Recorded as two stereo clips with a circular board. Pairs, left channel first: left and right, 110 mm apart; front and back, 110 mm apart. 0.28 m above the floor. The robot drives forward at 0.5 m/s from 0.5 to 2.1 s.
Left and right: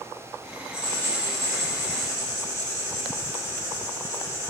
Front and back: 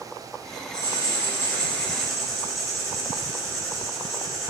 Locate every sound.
0.7 s writing: 25° left, 1.1 m; by 4.5 s 85° left, 0.8 m